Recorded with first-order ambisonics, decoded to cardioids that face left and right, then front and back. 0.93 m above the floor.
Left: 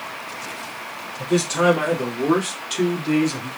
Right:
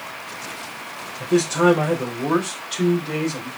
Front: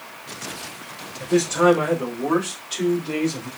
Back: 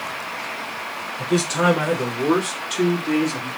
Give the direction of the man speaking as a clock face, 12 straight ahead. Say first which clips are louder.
Right 1 dB, front 2 dB; 7 o'clock.